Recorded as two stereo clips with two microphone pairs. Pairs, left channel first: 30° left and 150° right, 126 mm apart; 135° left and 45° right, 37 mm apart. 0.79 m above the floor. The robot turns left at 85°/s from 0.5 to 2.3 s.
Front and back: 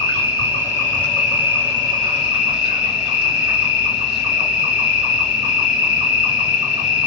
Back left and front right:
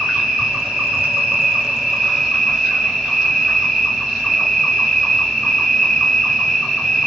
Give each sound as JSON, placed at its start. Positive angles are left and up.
{"t": 0.0, "sound": "an insect", "azimuth_deg": 10, "distance_m": 1.9}